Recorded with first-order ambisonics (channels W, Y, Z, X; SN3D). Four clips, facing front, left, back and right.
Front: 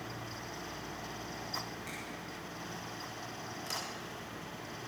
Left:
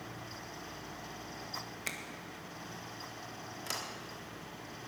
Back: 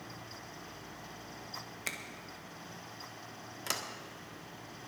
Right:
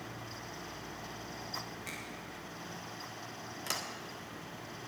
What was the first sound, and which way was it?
A finger snap, 140° left.